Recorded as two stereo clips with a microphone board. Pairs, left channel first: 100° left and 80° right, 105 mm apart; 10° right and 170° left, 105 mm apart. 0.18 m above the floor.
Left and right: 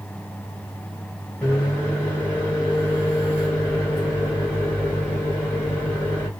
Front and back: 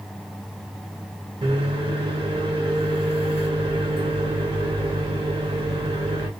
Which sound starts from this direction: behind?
A microwave, at 1.4 s.